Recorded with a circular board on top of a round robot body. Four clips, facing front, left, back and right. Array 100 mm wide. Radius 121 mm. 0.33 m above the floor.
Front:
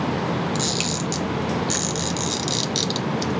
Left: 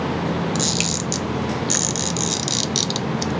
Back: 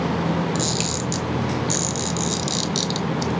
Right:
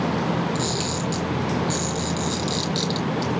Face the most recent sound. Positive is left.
turn(degrees=75)